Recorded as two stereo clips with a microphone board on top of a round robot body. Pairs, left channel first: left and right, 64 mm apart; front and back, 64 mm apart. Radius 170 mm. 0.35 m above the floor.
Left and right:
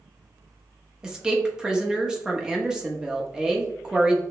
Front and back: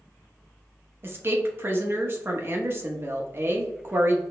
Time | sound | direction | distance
1.0 | a woman speaking | 160° right | 0.9 m